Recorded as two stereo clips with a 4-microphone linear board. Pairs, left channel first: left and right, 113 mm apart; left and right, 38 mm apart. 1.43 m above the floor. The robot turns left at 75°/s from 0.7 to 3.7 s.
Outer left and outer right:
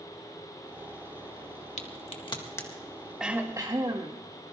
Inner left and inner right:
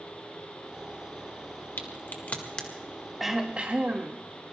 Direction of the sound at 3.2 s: 5° right.